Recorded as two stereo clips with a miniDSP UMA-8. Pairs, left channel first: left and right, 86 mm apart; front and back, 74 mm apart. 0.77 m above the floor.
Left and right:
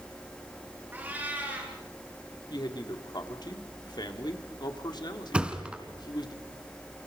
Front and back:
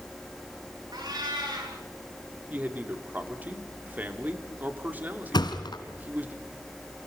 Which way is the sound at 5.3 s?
15° right.